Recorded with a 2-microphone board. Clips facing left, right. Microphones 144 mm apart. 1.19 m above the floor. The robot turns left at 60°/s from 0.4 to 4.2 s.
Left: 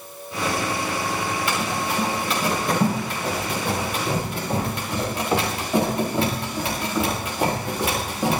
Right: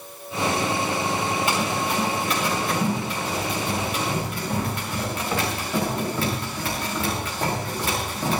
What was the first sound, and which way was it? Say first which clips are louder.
Running footsteps: right 1 dB; 20° right (ahead or behind).